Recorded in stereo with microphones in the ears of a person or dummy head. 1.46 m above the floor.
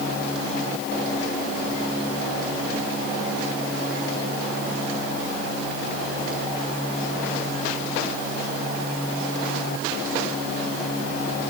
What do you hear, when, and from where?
Only background noise.